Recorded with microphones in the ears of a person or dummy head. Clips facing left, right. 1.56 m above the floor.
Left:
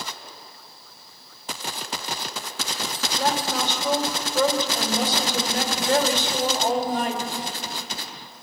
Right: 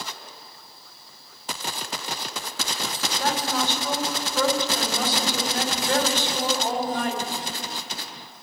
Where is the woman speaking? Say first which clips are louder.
Left 1 dB; 50° left (ahead or behind), 5 m.